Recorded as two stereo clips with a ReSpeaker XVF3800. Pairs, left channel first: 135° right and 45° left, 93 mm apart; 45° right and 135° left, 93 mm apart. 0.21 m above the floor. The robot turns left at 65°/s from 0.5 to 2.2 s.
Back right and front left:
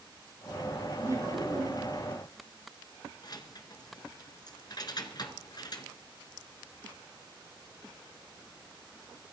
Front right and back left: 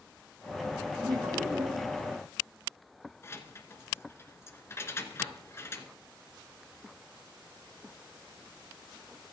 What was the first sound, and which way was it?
Laughter, 105° left.